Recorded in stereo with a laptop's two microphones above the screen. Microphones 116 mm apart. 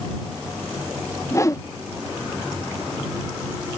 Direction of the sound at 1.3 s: 25° left (ahead or behind).